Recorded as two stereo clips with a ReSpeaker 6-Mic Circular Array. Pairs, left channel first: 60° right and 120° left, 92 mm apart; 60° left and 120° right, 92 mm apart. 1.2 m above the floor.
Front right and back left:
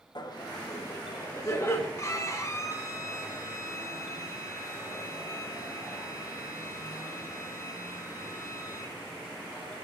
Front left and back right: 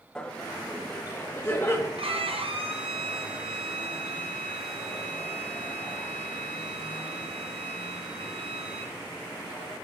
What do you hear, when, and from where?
0.1 s laughter: 20° right, 1.1 m; by 1.9 s straight ahead, 1.9 m
2.0 s a violin: 115° right, 0.8 m